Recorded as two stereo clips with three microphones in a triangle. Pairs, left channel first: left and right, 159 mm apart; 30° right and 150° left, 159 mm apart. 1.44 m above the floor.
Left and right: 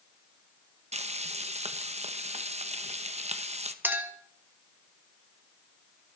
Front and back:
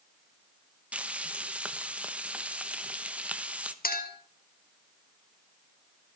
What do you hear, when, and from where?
0.9 s frying: 130° right, 0.9 m
3.8 s a clink: 10° right, 1.6 m